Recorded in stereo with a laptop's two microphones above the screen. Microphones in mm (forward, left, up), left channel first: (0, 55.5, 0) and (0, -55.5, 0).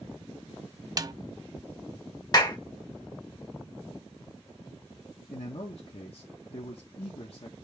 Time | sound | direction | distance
1.0 | a snare drum | 35° right (ahead or behind) | 0.5 m
2.3 | a clap | 35° left (ahead or behind) | 0.9 m
5.3 | a man speaking | 55° left (ahead or behind) | 0.9 m